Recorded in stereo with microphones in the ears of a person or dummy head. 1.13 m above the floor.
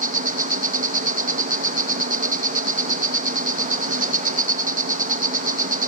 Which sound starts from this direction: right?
An insect, at 0.0 s.